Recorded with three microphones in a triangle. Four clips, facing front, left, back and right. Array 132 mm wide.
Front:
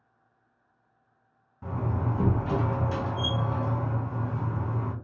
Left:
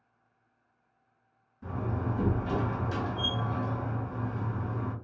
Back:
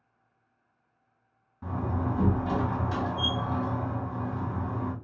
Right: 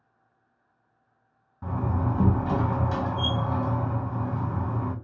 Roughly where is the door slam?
Right.